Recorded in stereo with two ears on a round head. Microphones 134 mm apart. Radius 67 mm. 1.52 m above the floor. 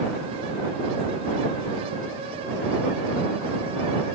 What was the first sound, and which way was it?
Only background noise.